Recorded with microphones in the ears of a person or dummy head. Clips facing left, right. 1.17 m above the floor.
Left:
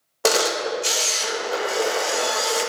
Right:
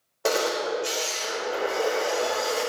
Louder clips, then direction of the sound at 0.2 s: Left 3 dB; 75° left (ahead or behind).